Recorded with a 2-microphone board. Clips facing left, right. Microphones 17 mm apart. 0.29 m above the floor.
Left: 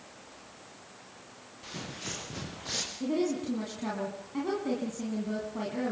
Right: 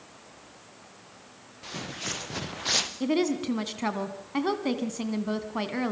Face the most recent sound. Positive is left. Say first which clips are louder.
# right 4 dB
turn(degrees=-50)  # may be behind; listen again after turning